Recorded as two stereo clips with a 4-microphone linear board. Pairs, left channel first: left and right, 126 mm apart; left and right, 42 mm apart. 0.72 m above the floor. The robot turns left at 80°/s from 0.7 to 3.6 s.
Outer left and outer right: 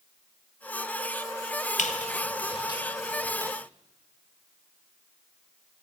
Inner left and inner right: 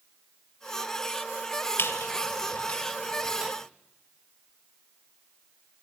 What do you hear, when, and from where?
1.8 s a squeak: 70° left (ahead or behind), 1.8 m; by 3.5 s 30° right (ahead or behind), 1.8 m